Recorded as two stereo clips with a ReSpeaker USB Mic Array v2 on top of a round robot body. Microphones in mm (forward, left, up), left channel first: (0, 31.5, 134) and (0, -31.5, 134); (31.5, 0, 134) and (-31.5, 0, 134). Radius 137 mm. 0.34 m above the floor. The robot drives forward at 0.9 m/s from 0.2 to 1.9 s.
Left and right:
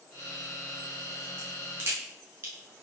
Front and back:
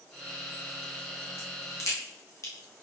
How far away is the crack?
About 7.5 m.